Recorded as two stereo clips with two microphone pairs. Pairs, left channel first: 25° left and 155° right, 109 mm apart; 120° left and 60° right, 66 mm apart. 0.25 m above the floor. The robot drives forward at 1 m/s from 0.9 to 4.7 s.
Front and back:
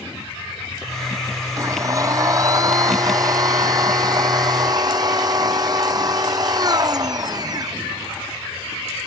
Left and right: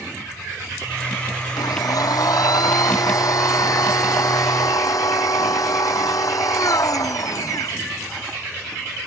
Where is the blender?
145° left; by 7.8 s 150° left.